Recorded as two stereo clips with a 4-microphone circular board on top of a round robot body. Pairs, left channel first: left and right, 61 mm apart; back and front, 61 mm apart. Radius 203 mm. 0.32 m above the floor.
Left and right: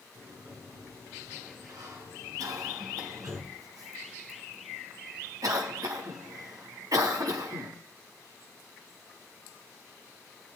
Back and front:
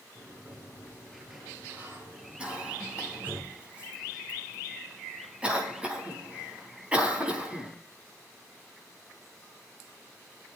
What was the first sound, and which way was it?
A sliding door, 65° right.